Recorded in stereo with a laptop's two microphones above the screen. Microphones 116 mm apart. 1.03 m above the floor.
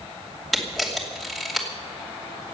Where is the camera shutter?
5° left (ahead or behind), 2.5 m.